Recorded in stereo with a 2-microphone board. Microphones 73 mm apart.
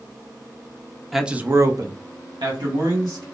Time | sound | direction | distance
1.1 | a man speaking | centre (ahead or behind) | 0.8 m